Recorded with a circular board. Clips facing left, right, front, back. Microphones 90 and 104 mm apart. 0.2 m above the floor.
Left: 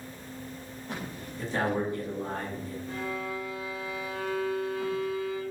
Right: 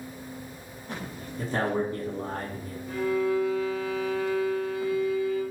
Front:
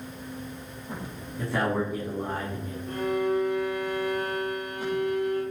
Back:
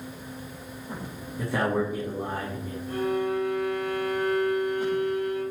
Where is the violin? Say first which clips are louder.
Right 11 dB, front 1 dB; 15° left, 1.4 m.